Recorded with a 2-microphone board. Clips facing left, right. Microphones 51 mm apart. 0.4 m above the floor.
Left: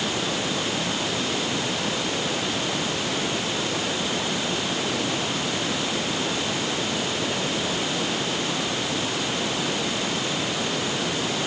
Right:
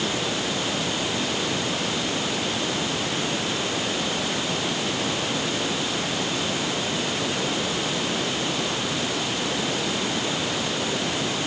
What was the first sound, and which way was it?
Only background noise.